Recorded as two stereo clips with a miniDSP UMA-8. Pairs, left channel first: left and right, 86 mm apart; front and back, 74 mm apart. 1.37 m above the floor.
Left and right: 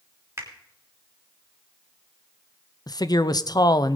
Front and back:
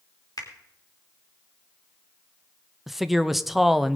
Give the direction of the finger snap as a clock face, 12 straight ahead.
1 o'clock.